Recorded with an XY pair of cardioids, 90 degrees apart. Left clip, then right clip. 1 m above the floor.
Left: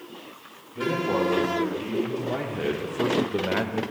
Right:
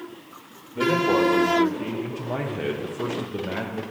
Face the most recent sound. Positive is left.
turn(degrees=60)